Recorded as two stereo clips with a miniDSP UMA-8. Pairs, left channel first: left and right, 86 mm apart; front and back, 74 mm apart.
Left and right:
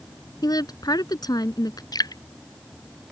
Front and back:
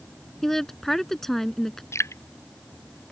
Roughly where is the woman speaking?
Left.